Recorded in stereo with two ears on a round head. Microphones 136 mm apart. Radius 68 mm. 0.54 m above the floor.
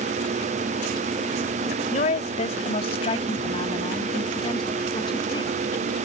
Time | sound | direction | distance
1.9 | a woman speaking | 50° left (ahead or behind) | ?